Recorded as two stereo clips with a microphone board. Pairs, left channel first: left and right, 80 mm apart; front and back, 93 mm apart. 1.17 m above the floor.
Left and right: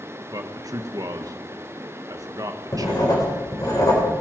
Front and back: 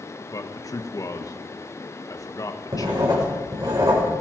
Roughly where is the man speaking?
Ahead right.